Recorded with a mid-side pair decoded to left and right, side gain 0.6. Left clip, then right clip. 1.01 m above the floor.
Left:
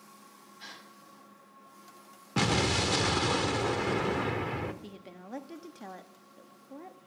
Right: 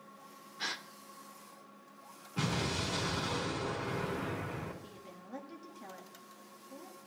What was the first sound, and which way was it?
A gasp, 55° right.